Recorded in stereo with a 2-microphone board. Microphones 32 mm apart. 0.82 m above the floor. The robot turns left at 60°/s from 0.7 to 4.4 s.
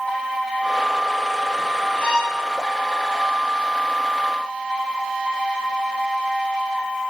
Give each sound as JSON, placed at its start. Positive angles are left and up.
{"t": 2.0, "sound": "a violin", "side_deg": 45, "distance_m": 3.0}